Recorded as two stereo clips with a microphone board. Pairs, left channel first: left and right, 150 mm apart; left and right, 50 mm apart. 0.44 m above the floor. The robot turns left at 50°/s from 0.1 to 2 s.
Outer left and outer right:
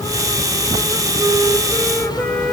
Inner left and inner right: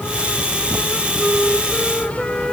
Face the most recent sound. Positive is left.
turn(degrees=170)